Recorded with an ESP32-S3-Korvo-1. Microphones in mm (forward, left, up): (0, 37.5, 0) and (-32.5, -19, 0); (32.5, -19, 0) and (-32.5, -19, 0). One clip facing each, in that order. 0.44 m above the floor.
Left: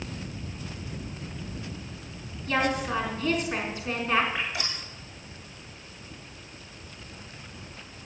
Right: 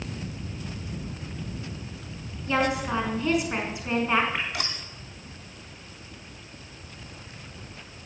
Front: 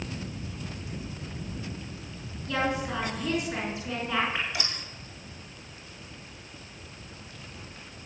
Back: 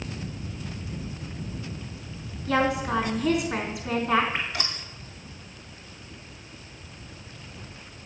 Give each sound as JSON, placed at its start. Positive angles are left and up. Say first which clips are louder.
{"t": 2.5, "sound": "a woman speaking", "louder": "right 1 dB, back 5 dB", "azimuth_deg": 165, "distance_m": 5.0}
{"t": 4.3, "sound": "dripping", "louder": "right 1 dB, back 1 dB", "azimuth_deg": -140, "distance_m": 3.5}